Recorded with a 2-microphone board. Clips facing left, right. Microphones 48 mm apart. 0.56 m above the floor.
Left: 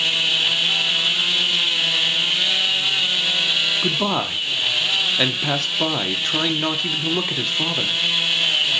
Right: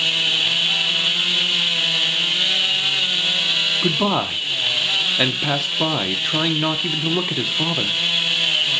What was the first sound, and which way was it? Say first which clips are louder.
A man speaking: right 2 dB; 10° right (ahead or behind).